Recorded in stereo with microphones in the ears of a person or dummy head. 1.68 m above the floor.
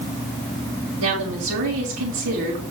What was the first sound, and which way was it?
A woman speaking, 80° right.